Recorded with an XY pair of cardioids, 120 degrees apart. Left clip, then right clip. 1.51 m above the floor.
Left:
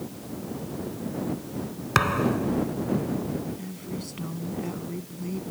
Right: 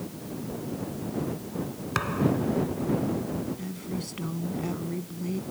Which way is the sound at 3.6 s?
10° right.